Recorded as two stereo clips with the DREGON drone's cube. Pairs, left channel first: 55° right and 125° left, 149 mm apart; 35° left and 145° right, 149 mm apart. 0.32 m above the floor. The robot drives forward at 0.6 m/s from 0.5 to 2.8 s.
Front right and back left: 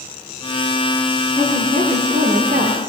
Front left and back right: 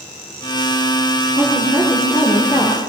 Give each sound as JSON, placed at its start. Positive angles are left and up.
{"t": 1.4, "sound": "a woman speaking", "azimuth_deg": 95, "distance_m": 9.5}